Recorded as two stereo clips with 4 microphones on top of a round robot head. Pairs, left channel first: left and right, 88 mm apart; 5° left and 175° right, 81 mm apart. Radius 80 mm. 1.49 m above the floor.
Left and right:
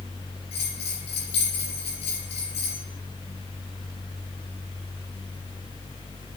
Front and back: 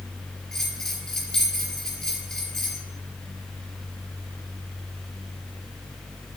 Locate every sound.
0.5 s a bell: 85° left, 5 m